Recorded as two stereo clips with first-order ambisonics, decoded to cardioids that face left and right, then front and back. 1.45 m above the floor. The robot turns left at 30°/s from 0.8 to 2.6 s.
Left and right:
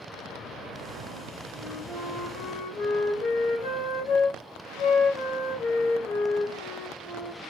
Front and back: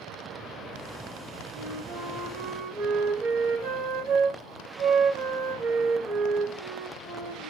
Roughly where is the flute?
Behind.